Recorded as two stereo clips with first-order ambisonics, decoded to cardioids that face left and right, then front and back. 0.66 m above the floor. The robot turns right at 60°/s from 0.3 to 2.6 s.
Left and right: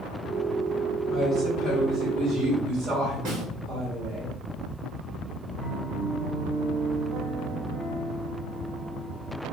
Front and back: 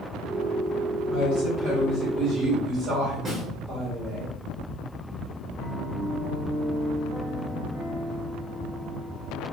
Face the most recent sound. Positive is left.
turn(degrees=-95)